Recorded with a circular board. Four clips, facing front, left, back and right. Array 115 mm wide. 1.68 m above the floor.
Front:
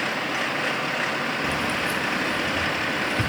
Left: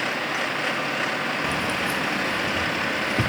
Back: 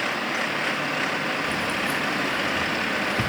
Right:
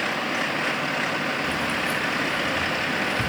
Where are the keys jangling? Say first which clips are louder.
Even, front 1 dB; 60° left, 1.3 m; by 3.3 s 85° left, 2.5 m.